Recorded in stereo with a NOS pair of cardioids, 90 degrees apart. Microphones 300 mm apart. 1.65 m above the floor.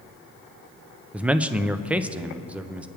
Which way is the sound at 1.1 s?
5° right.